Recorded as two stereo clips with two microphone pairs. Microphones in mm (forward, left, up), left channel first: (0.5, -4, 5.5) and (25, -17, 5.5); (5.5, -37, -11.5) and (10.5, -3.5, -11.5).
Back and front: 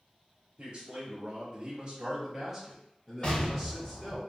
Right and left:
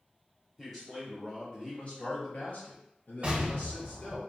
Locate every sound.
0.6 s a man speaking: 20° right, 1.0 m; by 4.2 s 130° right, 1.8 m
3.2 s an explosion: 115° left, 0.9 m